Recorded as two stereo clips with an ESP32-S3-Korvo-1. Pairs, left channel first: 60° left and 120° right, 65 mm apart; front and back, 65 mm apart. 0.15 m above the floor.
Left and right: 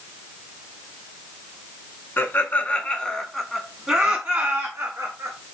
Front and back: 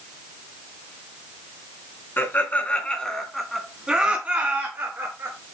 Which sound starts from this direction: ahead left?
Laughter, at 2.2 s.